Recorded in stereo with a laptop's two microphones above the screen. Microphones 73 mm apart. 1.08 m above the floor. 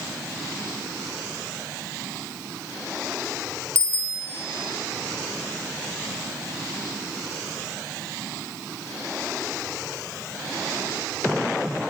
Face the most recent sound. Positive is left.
turn(degrees=-40)  # may be behind; listen again after turning